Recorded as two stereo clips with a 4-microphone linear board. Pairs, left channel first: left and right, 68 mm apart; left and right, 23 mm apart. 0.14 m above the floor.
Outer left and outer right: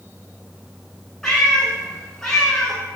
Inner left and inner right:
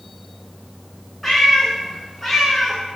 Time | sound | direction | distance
1.2 | a cat meowing | 5° left (ahead or behind) | 0.6 m